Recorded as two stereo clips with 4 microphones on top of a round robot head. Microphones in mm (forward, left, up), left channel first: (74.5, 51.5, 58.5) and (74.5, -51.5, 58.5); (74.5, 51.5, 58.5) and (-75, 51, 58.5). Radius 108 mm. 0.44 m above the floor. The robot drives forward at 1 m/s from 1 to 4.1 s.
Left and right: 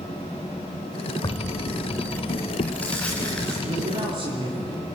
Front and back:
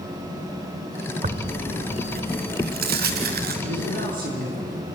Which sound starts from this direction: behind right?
A man speaking, at 3.6 s.